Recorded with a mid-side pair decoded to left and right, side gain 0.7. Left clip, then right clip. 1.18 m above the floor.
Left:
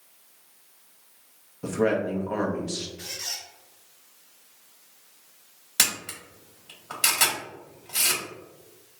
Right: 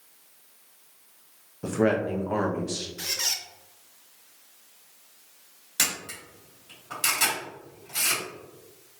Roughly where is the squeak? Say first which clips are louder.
Right 6 dB; ahead right.